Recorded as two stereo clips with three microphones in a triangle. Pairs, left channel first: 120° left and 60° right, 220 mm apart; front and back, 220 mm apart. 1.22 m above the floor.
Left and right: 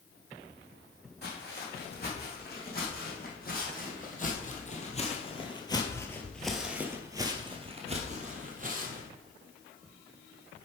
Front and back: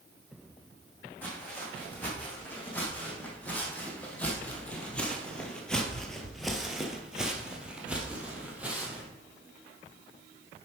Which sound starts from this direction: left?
Footsteps, at 1.2 s.